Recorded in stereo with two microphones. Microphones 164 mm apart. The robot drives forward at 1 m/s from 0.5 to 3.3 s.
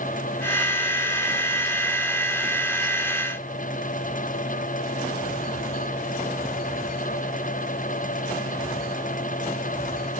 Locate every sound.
Only background noise.